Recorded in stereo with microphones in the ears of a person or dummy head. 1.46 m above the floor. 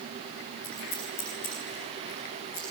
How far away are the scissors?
About 10 m.